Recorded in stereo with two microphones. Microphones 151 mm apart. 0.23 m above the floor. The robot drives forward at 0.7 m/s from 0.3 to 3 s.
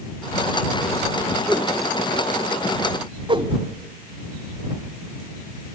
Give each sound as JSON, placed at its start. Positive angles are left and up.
{"t": 1.5, "sound": "a whoosh", "side_deg": -10, "distance_m": 1.0}
{"t": 3.3, "sound": "a whoosh", "side_deg": -35, "distance_m": 0.7}